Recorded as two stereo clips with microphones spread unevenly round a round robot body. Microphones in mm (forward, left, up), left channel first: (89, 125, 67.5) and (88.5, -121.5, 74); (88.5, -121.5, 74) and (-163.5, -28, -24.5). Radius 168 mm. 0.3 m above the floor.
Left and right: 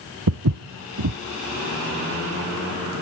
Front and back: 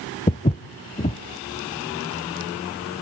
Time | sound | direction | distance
0.3 | footsteps | 75° right | 0.6 m